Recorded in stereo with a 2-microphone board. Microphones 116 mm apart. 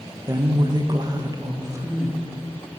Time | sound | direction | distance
0.3 | a woman speaking | 30° right (ahead or behind) | 0.5 m